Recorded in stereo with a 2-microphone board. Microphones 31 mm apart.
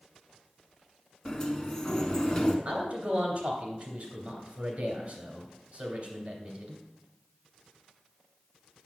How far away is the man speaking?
About 2.5 m.